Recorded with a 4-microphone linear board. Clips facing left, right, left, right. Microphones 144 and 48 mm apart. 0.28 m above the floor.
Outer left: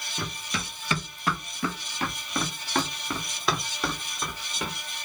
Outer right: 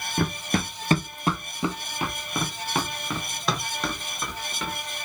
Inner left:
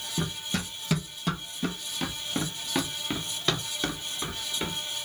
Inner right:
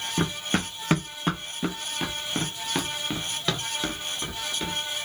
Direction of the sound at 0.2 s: 60° right (ahead or behind).